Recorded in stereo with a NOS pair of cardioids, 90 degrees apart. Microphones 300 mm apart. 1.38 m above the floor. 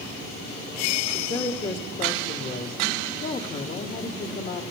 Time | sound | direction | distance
1.1 | a woman speaking | 40° left | 1.8 m